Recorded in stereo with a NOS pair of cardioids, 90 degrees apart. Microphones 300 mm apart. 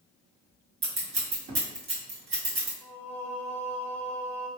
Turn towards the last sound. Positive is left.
turn(degrees=5)